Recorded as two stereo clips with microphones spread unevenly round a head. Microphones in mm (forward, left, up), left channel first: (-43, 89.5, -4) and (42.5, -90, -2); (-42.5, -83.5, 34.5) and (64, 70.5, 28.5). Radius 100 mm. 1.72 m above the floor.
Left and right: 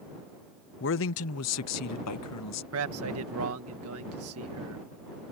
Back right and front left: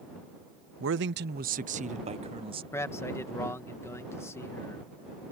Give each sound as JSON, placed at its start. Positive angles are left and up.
{"t": 0.8, "sound": "a man speaking", "azimuth_deg": 80}
{"t": 2.7, "sound": "a man speaking", "azimuth_deg": -50}